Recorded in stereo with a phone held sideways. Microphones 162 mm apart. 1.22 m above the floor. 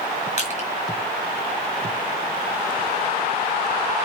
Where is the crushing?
45° left (ahead or behind), 4 m.